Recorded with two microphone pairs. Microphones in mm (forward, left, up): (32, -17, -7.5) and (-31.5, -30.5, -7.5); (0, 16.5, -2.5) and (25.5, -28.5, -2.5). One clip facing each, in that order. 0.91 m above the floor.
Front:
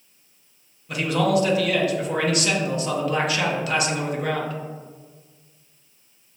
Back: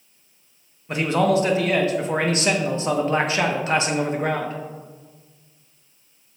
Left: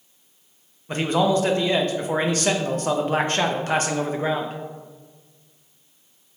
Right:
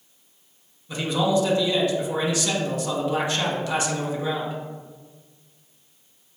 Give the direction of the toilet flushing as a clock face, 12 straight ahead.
No toilet flushing in this recording.